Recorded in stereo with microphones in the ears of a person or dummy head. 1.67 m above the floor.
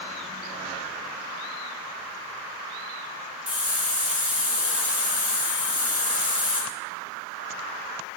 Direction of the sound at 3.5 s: 5° right (ahead or behind).